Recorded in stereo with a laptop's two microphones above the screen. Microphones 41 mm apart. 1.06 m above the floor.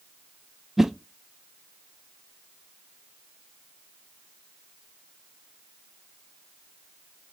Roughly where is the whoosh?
Centre.